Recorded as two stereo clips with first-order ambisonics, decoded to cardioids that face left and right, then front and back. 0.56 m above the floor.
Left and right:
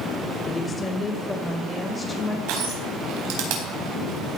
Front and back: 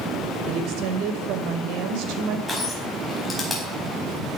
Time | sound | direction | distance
0.5 | a woman speaking | 165° left | 2 m
2.5 | crushing | 85° right | 4.5 m